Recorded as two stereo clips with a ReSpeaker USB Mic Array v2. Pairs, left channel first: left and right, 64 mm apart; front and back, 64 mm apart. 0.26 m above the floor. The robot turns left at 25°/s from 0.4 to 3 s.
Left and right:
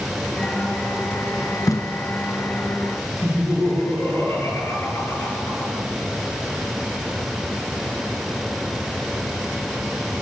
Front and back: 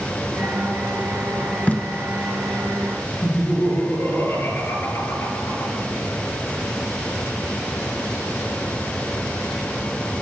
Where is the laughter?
45° left, 5 m.